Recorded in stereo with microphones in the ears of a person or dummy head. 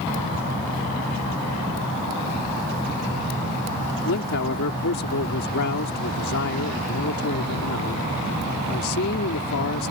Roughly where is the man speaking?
Left.